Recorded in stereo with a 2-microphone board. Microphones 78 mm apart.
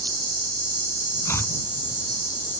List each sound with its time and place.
0.0 s an insect: 65° right (ahead or behind)
1.2 s chopping: 35° left (ahead or behind)